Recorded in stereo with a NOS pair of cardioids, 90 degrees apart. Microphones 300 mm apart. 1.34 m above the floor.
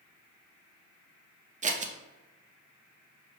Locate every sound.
1.6 s scissors: 25° right, 0.6 m